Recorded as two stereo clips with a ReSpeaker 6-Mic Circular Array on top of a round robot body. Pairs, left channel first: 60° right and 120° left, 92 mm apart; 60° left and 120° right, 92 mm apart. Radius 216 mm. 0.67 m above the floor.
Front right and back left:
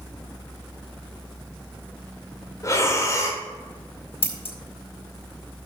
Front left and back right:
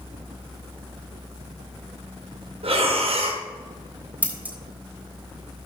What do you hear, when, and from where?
2.6 s breathing: 120° right, 1.8 m
4.2 s scissors: 45° right, 2.5 m